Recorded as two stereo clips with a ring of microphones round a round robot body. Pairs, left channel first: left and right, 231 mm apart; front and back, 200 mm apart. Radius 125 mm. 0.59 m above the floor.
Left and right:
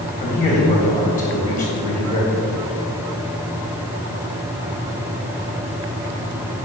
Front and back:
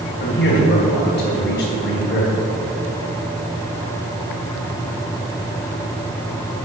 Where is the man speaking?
35° left, 3 m.